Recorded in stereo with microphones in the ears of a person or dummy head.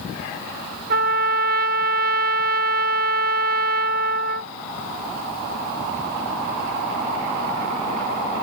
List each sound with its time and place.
0.9 s a trumpet: 45° right (ahead or behind)